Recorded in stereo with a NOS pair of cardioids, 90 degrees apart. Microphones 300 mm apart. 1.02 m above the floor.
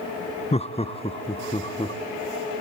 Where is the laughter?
20° left, 0.7 m; by 2.0 s 15° left, 1.6 m.